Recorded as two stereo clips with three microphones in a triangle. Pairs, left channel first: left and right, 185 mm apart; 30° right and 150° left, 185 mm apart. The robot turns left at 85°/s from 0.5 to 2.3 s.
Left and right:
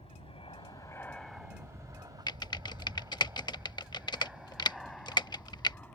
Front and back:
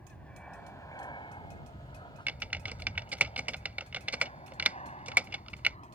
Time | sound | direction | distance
0.0 | an aircraft | 50° left | ?
2.3 | typing on a keyboard | 85° left | ?